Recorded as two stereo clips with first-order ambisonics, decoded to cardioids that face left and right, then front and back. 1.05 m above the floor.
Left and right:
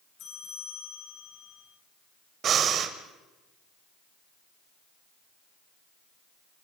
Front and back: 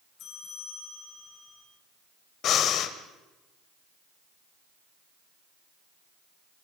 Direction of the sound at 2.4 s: 40° right.